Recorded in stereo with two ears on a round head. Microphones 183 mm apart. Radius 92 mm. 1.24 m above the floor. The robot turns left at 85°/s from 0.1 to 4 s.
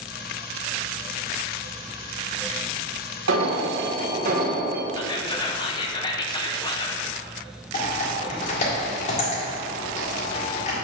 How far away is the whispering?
About 0.8 m.